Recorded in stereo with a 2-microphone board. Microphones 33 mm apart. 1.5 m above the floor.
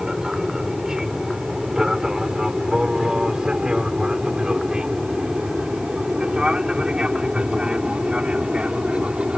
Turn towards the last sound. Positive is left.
turn(degrees=-35)  # may be behind; listen again after turning